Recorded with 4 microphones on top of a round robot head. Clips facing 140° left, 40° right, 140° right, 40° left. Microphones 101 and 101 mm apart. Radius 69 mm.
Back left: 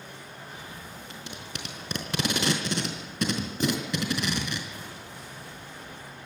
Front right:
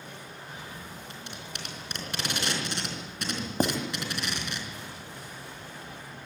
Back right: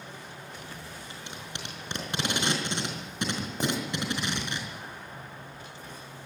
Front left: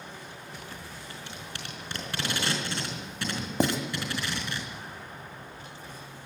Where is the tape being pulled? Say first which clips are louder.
Back left 1 dB, even; 150° left, 4 m.